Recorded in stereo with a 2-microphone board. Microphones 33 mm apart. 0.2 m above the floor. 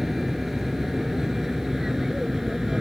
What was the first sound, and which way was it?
An aircraft, 10° right (ahead or behind).